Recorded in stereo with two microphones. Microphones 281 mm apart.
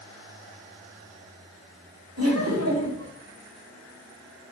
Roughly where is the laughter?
Right.